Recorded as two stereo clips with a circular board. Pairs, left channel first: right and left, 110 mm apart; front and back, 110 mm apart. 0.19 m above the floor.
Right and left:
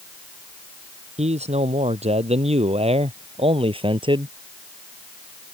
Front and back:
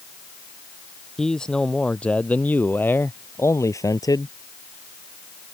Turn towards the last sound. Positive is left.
turn(degrees=50)